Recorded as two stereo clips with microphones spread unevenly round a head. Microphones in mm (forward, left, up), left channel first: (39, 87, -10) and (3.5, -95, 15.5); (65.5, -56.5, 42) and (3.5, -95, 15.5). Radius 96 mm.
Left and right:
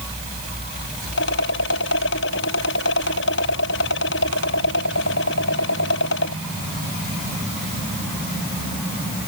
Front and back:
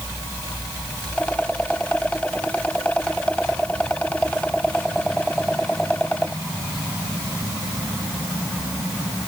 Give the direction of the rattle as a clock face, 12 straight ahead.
8 o'clock.